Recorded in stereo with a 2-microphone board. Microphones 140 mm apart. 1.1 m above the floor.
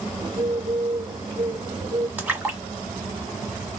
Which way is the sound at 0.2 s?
30° right (ahead or behind).